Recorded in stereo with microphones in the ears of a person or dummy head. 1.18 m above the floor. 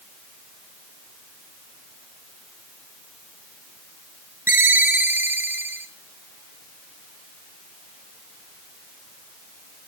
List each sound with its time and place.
4.5 s a ringtone: 10° right (ahead or behind), 0.9 m